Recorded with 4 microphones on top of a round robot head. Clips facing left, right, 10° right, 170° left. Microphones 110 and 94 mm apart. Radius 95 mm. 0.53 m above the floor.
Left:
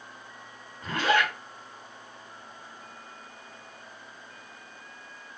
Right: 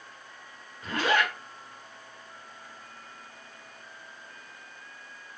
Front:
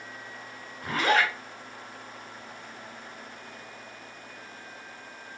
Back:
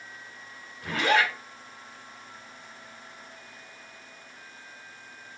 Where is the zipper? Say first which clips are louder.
Left 1 dB, even; 40° left, 1.5 m.